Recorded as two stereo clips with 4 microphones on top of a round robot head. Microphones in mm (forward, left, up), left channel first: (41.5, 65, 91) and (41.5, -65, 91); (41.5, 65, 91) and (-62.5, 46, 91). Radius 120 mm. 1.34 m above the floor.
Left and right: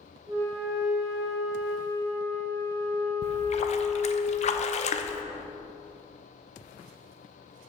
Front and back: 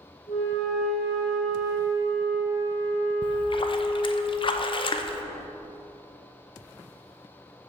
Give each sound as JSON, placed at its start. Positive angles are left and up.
{"t": 0.3, "sound": "a flute", "azimuth_deg": -45, "distance_m": 1.3}
{"t": 3.2, "sound": "a splash", "azimuth_deg": 55, "distance_m": 0.6}